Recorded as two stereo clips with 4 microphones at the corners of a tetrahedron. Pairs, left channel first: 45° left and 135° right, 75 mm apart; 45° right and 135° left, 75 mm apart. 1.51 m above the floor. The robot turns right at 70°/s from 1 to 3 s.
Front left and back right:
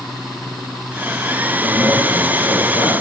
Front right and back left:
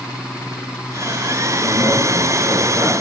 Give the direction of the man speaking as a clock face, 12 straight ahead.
2 o'clock.